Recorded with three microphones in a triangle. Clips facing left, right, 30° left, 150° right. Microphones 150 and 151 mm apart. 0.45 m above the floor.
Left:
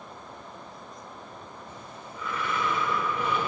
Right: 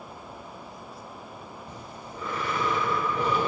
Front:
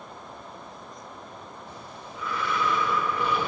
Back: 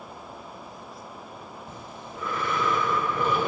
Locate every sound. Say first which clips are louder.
1.7 s breathing: right 2 dB, back 1 dB; 130° right, 1.1 m